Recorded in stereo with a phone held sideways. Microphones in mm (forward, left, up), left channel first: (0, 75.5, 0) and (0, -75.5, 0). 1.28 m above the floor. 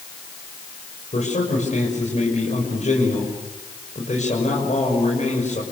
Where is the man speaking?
50° left (ahead or behind), 6.5 m.